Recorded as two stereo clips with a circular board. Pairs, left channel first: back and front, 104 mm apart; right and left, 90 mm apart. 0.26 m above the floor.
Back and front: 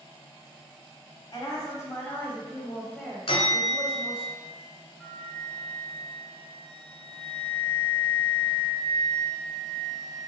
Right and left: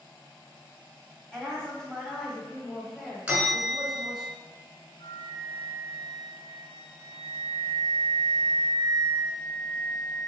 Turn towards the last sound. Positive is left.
turn(degrees=-95)